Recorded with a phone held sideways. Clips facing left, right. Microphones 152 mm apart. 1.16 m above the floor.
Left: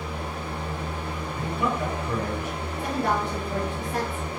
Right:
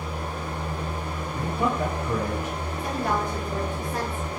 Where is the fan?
40° right (ahead or behind), 1.3 m.